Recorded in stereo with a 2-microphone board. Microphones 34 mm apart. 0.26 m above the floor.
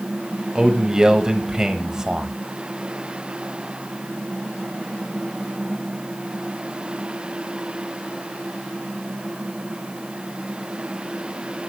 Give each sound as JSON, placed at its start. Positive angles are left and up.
{"t": 0.6, "sound": "a man speaking", "side_deg": -20, "distance_m": 1.1}